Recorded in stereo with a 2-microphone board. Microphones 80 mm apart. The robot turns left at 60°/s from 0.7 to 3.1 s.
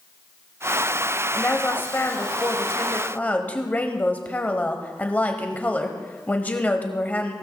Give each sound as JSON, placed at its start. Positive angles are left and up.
{"t": 1.3, "sound": "a woman speaking", "side_deg": 15, "distance_m": 1.1}